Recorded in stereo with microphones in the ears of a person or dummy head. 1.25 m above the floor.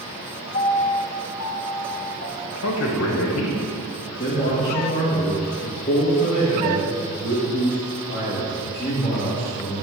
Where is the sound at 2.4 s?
80° left, 1.1 m.